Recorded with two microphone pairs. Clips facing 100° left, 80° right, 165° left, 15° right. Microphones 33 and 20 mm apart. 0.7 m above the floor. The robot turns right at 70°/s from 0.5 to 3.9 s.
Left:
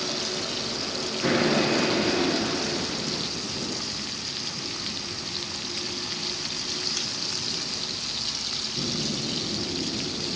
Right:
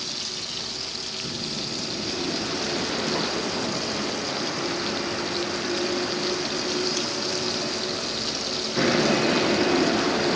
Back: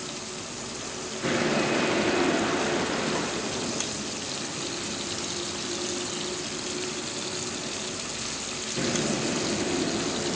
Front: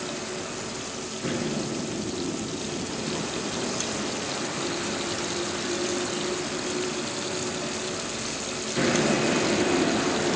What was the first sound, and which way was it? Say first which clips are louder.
A vehicle: left 3 dB, front 4 dB; 45° left.